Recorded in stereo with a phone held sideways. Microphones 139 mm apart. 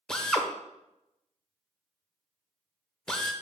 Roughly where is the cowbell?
I don't hear a cowbell.